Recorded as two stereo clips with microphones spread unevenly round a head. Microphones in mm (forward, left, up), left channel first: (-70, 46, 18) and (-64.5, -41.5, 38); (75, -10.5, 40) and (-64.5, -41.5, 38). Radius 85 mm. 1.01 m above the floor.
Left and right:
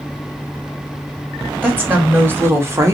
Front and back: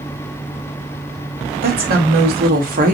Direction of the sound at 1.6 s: 160° right.